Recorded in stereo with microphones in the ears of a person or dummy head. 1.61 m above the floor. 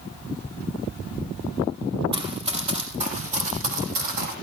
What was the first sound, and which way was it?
Running footsteps, 20° right (ahead or behind).